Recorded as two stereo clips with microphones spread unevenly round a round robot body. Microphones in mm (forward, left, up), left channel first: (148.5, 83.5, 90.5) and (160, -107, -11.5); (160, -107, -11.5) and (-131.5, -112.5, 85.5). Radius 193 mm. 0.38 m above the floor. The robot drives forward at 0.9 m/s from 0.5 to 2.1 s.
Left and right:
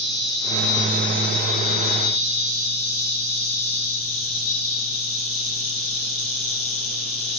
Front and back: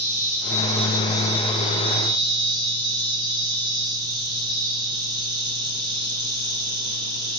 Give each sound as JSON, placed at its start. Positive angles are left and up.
{"t": 0.0, "sound": "an insect", "azimuth_deg": 40, "distance_m": 2.5}